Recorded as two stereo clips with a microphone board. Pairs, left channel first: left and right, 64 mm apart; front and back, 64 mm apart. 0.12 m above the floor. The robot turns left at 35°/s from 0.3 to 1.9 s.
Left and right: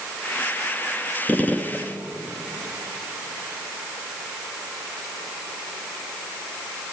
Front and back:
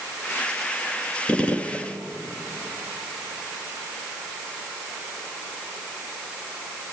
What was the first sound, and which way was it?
A gunshot, 60° left.